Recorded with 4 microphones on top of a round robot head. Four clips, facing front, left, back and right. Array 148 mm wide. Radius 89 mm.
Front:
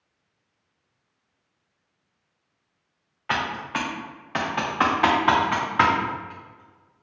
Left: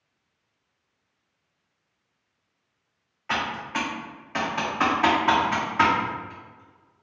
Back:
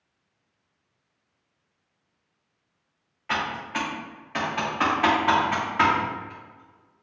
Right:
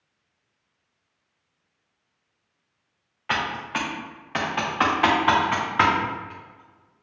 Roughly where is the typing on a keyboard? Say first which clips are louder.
Right 1 dB, front 2 dB; ahead right.